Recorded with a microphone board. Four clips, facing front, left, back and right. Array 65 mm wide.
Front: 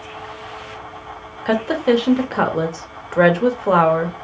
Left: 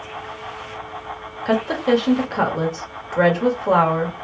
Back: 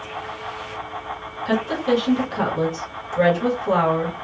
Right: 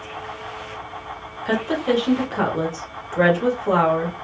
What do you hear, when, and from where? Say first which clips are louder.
1.4 s a woman speaking: left 2 dB, front 4 dB; 20° left, 1.4 m